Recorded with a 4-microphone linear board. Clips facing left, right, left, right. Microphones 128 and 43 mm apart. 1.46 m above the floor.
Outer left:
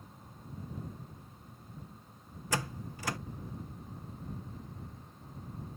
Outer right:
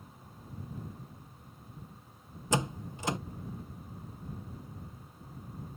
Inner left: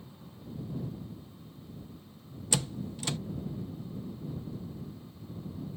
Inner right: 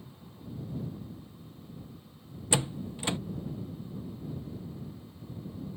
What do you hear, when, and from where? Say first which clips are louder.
2.5 s a door slam: outer right 4 dB, inner right 3 dB; 20° right (ahead or behind)